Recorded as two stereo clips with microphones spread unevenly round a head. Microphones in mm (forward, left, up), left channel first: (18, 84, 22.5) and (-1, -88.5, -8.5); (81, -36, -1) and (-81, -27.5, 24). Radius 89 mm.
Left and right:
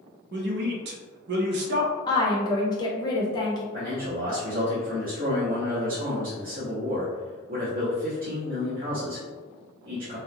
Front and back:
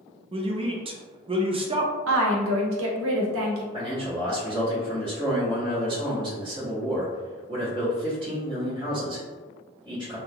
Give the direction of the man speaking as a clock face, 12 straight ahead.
4 o'clock.